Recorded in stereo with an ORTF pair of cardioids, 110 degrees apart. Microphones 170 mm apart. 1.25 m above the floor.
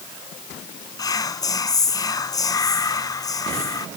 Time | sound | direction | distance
1.0 | whispering | 20° left | 0.9 m